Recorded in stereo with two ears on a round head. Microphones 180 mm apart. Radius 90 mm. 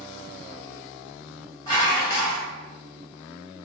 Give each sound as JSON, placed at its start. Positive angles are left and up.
{"t": 1.7, "sound": "dishes clattering", "side_deg": 20, "distance_m": 1.0}